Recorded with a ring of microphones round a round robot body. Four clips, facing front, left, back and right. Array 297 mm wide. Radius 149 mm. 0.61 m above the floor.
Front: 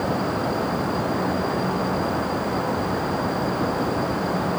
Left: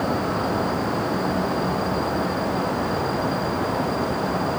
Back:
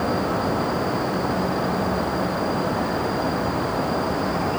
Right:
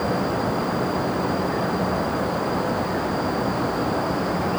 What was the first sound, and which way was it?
Only background noise.